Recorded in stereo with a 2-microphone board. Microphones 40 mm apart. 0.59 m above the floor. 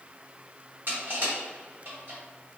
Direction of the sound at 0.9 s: 50° right (ahead or behind).